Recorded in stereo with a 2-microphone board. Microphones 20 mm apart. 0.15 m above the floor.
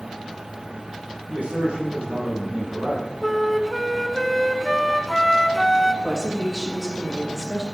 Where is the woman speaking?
15° right (ahead or behind), 5 m.